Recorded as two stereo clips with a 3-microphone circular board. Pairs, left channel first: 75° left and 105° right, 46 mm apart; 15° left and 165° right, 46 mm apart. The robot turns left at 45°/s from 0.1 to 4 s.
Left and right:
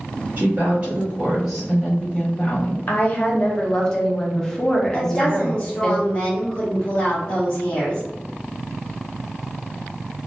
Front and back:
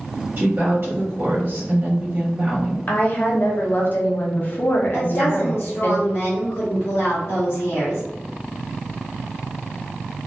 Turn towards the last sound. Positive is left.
turn(degrees=40)